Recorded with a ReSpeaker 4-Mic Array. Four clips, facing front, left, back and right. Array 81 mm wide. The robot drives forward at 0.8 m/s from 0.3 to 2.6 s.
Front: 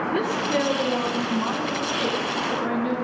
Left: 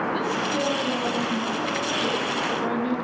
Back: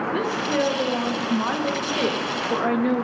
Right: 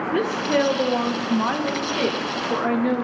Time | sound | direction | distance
0.1 | a woman speaking | 80° right | 1.5 m